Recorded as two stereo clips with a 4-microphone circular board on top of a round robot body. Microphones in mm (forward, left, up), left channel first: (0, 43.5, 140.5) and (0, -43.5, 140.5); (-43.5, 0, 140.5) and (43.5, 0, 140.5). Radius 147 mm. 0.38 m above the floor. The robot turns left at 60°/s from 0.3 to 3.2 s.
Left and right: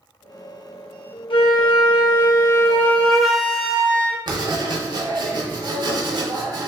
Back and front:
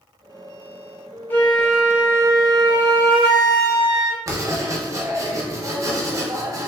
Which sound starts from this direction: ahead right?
Writing, at 4.3 s.